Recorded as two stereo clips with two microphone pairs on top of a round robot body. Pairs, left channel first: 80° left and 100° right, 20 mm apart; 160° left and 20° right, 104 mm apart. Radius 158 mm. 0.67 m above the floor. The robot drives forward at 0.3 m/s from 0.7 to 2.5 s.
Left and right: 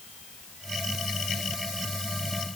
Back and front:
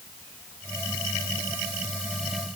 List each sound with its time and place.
Only background noise.